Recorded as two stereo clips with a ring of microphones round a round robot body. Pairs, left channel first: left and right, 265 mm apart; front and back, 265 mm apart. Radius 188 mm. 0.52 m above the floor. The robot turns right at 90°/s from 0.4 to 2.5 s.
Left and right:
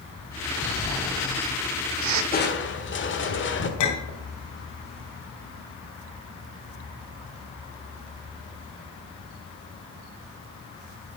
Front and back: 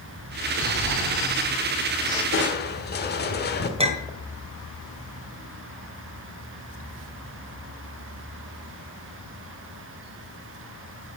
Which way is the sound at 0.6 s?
135° left.